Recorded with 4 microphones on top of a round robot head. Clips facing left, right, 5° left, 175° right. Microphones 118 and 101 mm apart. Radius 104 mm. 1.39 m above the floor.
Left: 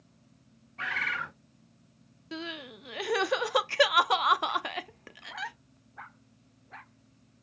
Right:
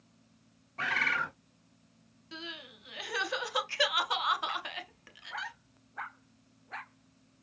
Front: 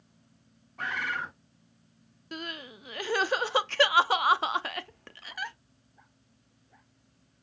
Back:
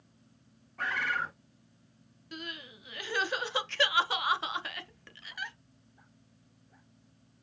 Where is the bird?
70° right, 0.8 m.